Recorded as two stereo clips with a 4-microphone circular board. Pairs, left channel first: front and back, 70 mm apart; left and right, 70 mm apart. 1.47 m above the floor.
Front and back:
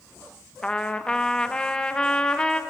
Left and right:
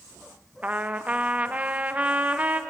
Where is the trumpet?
55° right, 0.8 m.